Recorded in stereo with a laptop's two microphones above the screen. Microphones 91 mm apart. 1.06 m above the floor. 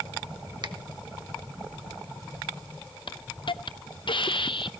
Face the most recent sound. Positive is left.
turn(degrees=65)  # may be behind; listen again after turning